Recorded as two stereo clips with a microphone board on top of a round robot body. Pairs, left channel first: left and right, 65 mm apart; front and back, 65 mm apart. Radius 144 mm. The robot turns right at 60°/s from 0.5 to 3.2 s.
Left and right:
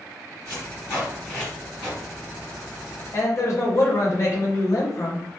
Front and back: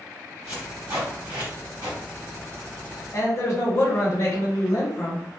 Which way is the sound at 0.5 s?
115° left.